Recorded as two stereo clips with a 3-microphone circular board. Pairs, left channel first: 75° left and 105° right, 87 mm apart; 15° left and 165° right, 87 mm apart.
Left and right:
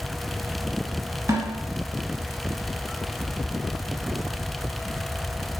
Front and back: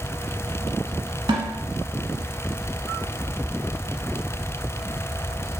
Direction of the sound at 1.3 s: 145° right.